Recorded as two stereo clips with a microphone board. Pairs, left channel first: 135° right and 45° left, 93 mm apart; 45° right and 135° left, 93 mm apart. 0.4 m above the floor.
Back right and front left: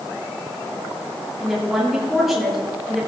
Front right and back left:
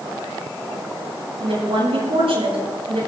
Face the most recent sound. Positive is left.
turn(degrees=135)